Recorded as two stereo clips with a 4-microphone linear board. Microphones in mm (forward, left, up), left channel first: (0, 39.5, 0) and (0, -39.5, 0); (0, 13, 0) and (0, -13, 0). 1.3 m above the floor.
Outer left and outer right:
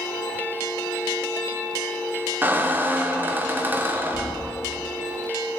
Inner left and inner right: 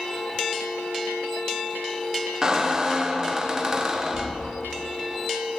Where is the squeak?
25° right (ahead or behind), 0.5 m.